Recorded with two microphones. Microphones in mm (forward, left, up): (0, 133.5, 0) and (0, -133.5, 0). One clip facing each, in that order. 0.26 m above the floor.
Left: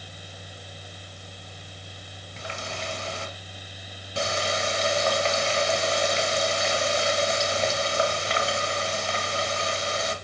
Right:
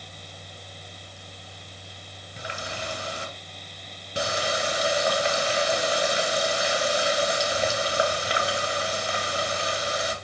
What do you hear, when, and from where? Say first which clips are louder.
2.4 s a running tap: even; 15° right (ahead or behind), 2.5 m